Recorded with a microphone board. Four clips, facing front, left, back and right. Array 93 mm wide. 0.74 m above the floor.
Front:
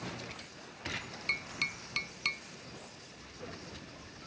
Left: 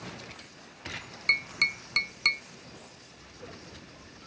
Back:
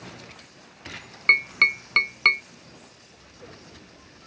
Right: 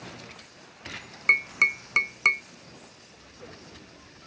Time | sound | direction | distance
1.3 | tapping | 155° right | ?